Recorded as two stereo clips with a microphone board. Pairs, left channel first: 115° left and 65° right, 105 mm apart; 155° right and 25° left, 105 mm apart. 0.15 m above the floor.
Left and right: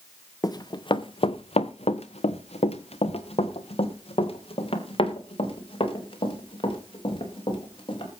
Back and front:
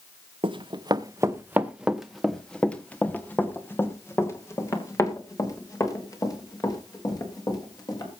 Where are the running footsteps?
55° left, 1.0 m; by 8.1 s 150° left, 4.5 m.